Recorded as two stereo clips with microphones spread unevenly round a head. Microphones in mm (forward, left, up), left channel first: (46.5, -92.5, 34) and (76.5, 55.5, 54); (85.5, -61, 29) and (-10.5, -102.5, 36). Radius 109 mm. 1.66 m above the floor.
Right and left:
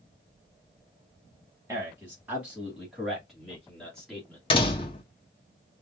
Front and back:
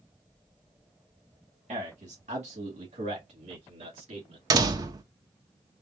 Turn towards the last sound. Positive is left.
turn(degrees=-165)